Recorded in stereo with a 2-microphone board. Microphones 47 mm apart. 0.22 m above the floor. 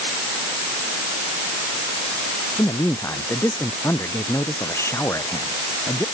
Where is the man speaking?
85° left.